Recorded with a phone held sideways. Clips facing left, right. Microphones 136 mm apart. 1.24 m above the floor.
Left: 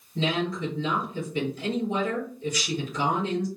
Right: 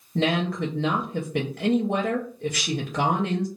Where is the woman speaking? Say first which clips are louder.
Right 3 dB; 70° right (ahead or behind), 0.6 m.